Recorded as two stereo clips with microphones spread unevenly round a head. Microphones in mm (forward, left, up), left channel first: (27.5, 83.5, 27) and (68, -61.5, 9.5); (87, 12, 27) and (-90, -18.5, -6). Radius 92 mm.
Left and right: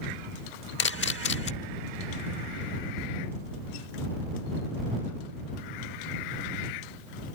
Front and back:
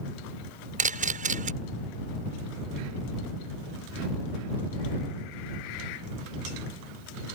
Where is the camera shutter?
140° left.